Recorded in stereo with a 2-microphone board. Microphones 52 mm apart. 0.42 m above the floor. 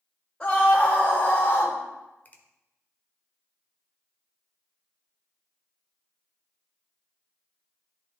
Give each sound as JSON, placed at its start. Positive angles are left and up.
{"t": 0.4, "sound": "a scream", "side_deg": 20, "distance_m": 2.0}
{"t": 2.2, "sound": "a finger snap", "side_deg": 35, "distance_m": 1.0}